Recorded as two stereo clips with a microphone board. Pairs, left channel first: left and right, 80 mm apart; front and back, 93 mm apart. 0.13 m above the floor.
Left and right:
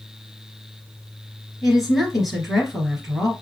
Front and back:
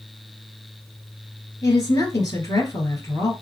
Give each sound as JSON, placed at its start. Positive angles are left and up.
{"t": 1.6, "sound": "a woman speaking", "azimuth_deg": -5, "distance_m": 1.8}